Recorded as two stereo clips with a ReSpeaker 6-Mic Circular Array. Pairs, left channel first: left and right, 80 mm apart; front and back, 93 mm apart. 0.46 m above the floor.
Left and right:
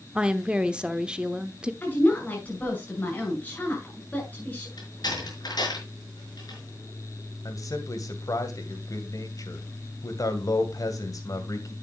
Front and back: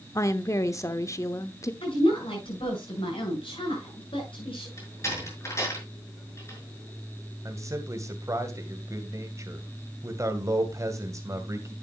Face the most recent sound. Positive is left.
turn(degrees=125)